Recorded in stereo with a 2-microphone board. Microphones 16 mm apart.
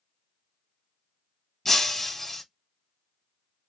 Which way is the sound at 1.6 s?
25° left (ahead or behind).